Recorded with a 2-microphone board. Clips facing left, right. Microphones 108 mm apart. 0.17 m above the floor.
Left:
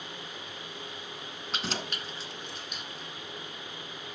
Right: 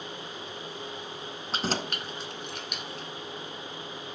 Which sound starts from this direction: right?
Keys jangling, at 1.5 s.